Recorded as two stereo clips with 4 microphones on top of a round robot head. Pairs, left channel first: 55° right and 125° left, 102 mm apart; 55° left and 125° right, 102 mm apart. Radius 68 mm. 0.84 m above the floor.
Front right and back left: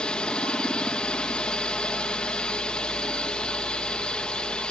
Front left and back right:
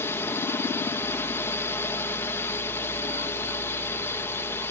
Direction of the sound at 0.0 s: 20° left.